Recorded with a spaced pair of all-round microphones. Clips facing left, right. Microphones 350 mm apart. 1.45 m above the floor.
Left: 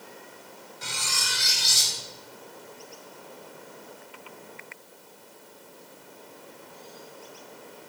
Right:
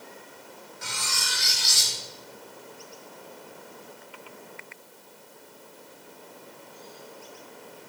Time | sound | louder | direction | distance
0.8 | cutlery clinking | left 1 dB | 45° left (ahead or behind) | 2 m